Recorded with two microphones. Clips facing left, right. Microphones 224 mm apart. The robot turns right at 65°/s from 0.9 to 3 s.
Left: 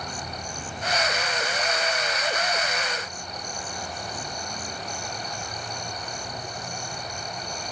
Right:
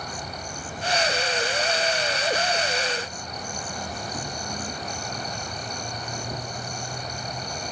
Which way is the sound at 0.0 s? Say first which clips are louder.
Even; 175° right.